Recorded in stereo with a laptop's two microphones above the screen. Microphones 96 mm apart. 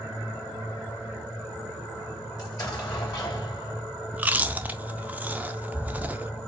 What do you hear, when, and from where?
2.4 s an explosion: 40° left (ahead or behind), 2.0 m
4.1 s chewing: 15° right (ahead or behind), 0.5 m